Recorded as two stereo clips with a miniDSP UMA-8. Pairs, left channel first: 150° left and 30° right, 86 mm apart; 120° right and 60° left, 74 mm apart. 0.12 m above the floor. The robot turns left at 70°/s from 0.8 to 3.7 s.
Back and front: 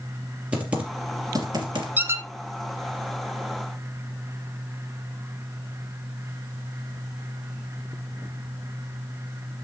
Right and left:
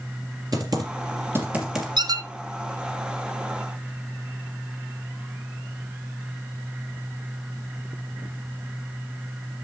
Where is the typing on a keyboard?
45° left, 2.5 m; by 1.9 s 30° right, 2.5 m.